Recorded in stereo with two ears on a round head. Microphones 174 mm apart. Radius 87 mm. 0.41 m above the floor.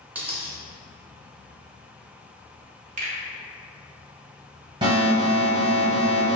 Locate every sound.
0.1 s a dropped coin: 10° right (ahead or behind), 0.6 m
3.0 s a finger snap: 40° right (ahead or behind), 0.7 m
4.8 s an alarm: 25° right (ahead or behind), 1.1 m